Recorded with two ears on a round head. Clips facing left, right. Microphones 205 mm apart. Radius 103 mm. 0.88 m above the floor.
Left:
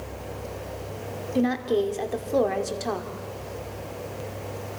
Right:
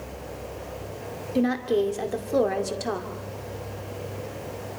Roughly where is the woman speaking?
Centre.